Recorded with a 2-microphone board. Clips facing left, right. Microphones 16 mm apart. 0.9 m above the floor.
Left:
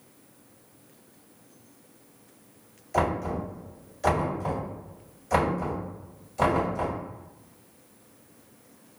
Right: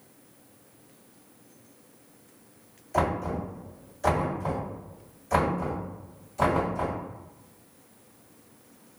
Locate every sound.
2.9 s knocking: 10° left (ahead or behind), 2.0 m